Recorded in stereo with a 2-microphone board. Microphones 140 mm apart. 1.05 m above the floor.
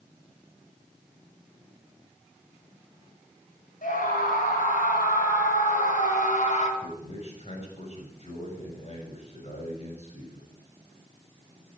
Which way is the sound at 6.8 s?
50° left (ahead or behind).